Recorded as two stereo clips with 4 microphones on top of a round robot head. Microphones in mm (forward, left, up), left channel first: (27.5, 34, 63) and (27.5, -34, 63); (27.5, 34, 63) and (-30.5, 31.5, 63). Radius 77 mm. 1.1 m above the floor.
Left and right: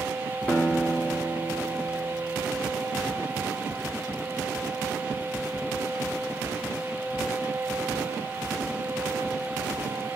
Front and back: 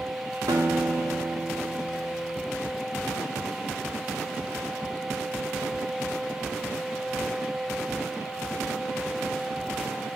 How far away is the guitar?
About 2.5 m.